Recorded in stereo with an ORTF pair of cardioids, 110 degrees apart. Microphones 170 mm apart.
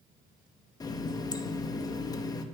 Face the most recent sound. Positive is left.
turn(degrees=20)